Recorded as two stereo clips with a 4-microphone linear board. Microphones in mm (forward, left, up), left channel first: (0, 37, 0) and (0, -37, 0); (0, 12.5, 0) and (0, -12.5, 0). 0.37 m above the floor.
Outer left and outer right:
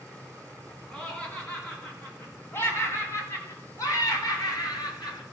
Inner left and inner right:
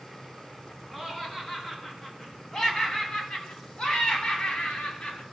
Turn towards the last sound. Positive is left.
turn(degrees=65)  # may be behind; listen again after turning